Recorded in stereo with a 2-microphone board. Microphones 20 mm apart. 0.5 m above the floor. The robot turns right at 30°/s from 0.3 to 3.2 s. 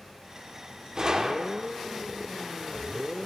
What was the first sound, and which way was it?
A gunshot, 40° right (ahead or behind).